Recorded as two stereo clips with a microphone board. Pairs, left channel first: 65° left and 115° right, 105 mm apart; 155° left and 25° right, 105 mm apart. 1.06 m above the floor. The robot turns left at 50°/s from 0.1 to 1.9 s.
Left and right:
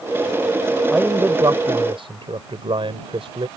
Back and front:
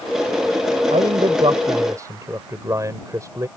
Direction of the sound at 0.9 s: 30° right.